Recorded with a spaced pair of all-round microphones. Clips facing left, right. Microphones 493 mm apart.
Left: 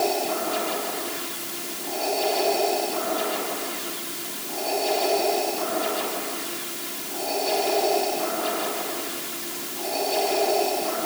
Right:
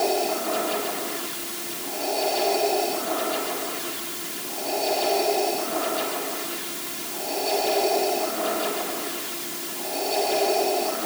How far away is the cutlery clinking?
No cutlery clinking in this recording.